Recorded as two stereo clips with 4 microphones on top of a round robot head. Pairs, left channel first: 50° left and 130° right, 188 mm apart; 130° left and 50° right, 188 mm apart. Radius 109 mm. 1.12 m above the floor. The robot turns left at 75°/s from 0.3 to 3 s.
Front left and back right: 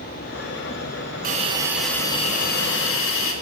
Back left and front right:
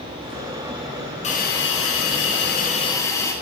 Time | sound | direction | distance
1.2 | a hiss | 175° right | 3 m